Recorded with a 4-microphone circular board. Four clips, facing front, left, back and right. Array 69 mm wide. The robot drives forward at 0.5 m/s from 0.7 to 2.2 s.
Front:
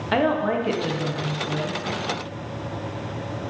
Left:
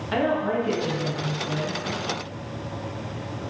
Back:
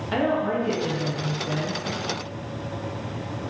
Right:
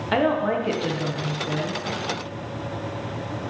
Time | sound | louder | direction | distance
0.1 | a woman speaking | right 2 dB, front 2 dB | 35° right | 0.6 m